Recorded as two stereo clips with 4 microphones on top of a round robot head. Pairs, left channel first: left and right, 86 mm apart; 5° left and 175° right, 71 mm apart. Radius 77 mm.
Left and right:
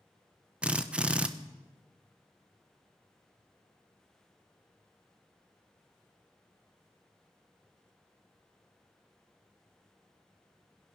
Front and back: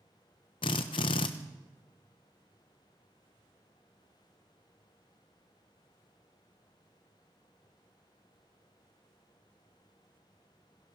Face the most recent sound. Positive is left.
turn(degrees=-10)